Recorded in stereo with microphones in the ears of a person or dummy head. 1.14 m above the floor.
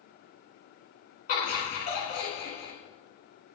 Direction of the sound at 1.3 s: 35° left (ahead or behind).